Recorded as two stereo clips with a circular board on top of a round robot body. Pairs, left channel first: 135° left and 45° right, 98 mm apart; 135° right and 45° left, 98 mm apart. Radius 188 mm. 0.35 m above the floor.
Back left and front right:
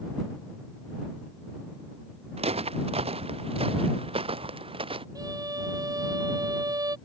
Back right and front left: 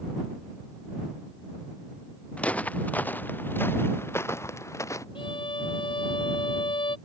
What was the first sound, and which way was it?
Footsteps, 55° right.